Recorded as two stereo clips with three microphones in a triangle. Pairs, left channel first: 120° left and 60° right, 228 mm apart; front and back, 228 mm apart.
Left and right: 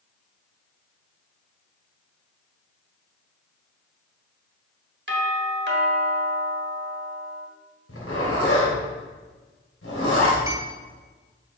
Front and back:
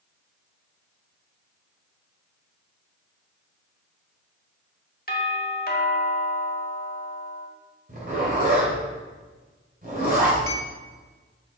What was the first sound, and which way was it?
A doorbell, 40° right.